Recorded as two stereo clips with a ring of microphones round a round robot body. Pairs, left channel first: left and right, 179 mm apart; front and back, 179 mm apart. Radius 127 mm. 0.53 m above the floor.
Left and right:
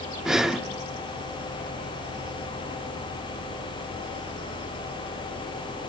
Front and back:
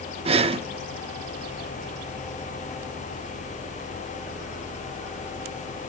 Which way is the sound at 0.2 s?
175° right.